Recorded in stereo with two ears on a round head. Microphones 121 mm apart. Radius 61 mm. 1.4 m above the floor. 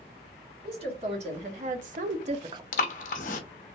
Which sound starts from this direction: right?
A woman speaking, at 0.6 s.